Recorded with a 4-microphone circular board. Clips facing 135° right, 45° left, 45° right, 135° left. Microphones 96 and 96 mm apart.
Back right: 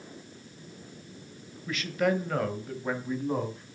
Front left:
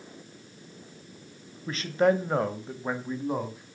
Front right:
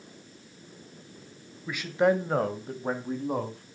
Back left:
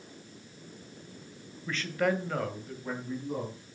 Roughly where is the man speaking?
Ahead left.